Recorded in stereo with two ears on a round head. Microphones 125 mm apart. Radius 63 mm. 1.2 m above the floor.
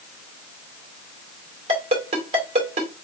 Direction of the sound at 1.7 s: 45° right (ahead or behind).